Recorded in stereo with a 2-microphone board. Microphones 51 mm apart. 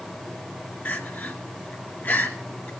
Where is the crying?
40° left (ahead or behind), 1.8 m.